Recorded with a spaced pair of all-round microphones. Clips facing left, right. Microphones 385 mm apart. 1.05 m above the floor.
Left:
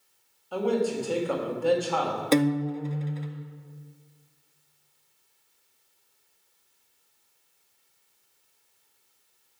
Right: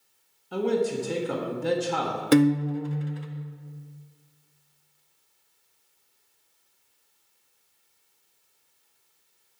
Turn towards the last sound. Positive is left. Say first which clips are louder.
# right 4 dB
turn(degrees=-25)  # may be behind; listen again after turning